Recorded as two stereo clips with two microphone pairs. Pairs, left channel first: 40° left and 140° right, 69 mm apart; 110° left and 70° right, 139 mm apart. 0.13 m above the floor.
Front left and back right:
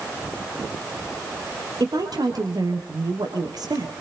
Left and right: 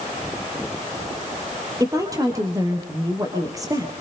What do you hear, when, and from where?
1.8 s a woman speaking: 135° right, 3 m